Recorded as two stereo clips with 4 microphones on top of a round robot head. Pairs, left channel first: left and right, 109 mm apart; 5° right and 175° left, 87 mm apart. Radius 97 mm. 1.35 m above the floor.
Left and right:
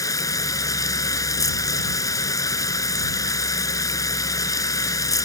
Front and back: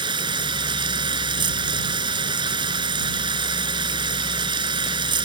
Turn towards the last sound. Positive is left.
turn(degrees=150)